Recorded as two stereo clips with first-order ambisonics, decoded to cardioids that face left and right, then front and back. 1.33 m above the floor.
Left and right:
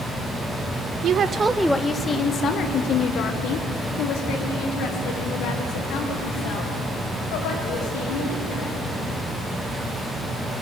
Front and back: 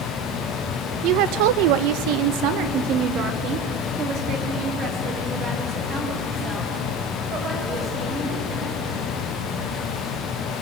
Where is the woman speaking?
140° right, 0.8 m; by 8.8 s 120° left, 6.5 m.